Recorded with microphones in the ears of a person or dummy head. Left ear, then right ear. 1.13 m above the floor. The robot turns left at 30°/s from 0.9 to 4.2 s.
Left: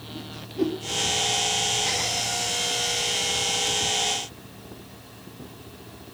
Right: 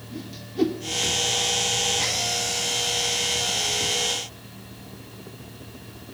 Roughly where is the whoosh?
Right.